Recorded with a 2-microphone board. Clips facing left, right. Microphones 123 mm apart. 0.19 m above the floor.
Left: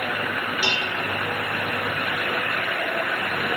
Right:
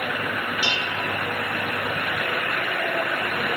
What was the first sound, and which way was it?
Dishes clattering, 35° left (ahead or behind).